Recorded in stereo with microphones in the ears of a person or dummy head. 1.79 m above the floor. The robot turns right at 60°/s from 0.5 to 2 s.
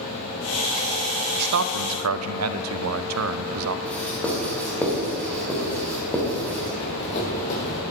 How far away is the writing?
About 2.5 m.